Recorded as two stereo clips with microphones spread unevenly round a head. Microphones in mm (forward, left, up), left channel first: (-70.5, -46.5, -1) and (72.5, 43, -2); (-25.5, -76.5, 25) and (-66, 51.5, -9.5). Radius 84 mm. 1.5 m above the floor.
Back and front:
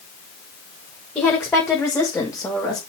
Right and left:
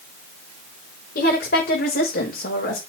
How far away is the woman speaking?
About 6 m.